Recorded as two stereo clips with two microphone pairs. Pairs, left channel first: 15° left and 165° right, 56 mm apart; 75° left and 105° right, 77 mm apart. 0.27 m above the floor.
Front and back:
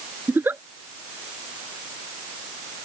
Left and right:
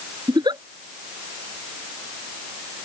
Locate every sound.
0.3 s a giggle: 115° right